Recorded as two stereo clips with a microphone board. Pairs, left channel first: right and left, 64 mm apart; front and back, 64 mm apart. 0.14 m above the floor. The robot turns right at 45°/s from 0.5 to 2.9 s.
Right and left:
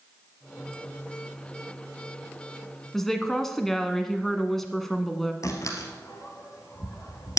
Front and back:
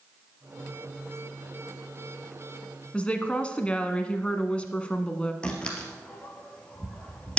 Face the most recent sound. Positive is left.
turn(degrees=-70)